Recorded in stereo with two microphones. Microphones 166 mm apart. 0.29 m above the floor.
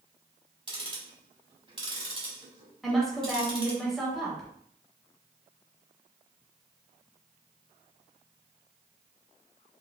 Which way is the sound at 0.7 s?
30° right (ahead or behind).